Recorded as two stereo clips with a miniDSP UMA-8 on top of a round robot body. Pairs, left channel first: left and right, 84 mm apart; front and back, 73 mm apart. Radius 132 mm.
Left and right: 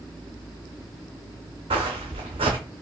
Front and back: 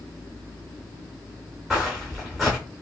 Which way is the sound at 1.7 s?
90° right.